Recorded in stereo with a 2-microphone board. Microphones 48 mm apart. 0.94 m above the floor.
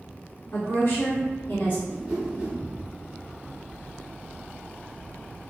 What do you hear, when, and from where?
0.5 s a woman speaking: 55° left (ahead or behind), 1.5 m; by 1.8 s 40° left (ahead or behind), 0.7 m
1.9 s a whoosh: 15° right (ahead or behind), 1.0 m